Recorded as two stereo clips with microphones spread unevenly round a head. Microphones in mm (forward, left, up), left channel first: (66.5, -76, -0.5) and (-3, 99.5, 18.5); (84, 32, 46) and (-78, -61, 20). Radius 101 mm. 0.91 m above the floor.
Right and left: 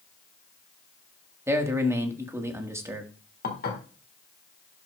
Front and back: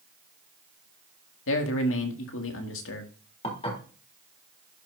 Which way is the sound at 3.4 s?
30° right.